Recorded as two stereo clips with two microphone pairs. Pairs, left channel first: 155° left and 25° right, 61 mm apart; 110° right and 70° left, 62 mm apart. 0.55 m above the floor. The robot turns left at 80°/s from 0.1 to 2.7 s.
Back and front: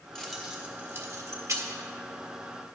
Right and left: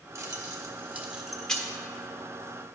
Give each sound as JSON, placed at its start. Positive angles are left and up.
{"t": 0.1, "sound": "keys jangling", "azimuth_deg": 75, "distance_m": 1.1}